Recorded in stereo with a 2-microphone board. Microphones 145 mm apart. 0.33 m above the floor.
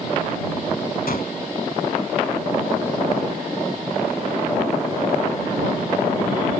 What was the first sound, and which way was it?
A gunshot, 75° left (ahead or behind).